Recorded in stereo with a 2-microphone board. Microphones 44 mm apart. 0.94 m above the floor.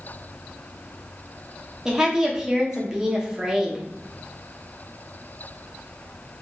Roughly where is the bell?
I don't hear a bell.